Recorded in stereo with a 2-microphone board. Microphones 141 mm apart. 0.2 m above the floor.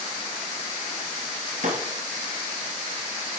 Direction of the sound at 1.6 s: 65° right (ahead or behind).